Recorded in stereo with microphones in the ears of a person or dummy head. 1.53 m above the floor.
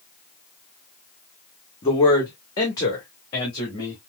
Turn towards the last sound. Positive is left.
turn(degrees=30)  # may be behind; listen again after turning